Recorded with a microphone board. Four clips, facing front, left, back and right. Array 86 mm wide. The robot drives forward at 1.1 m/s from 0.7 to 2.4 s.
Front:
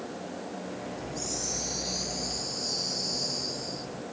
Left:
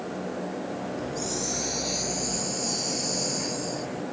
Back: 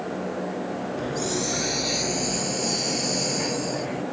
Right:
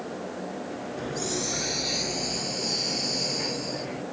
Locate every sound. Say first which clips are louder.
1.0 s a hiss: even, back 9 dB; 150° right; by 4.0 s 160° right